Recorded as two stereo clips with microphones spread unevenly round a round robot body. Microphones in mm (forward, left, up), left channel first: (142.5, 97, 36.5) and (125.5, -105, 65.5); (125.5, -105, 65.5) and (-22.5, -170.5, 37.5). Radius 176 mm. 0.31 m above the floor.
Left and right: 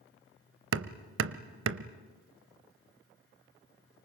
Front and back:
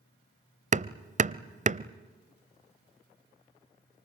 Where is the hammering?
120° right, 0.7 m.